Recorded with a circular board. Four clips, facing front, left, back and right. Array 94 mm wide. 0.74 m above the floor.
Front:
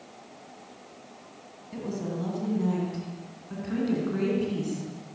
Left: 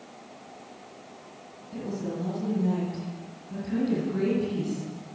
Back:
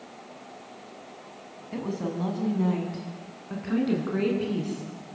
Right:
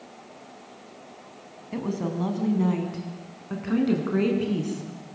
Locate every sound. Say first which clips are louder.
1.7 s a woman speaking: right 4 dB, back 2 dB; 115° right, 6.5 m; by 4.8 s 105° right, 9.5 m